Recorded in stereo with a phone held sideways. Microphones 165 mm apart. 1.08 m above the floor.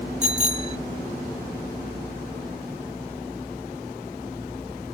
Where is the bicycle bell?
40° right (ahead or behind).